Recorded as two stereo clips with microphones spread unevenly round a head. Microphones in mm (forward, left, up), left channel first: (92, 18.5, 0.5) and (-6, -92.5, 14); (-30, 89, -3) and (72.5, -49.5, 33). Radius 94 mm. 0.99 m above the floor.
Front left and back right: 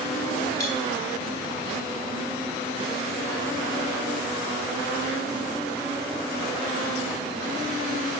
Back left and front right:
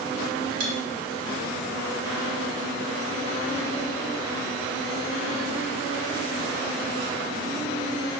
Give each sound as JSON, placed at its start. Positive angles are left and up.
{"t": 0.6, "sound": "cutlery clinking", "azimuth_deg": -15, "distance_m": 2.0}